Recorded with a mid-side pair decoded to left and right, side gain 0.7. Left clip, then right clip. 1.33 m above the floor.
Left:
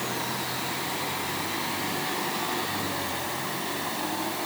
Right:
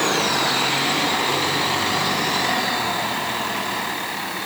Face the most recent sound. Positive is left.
No sound to turn to.